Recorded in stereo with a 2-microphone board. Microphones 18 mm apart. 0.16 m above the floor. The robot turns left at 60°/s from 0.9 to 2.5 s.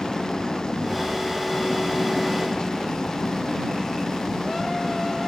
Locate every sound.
0.0 s an engine running: 135° left; by 5.3 s 40° left